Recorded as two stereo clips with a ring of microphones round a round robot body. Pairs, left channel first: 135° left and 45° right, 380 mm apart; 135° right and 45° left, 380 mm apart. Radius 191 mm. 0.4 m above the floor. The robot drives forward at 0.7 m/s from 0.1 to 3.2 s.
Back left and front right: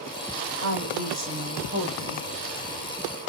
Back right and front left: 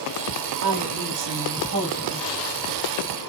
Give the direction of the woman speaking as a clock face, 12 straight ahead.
12 o'clock.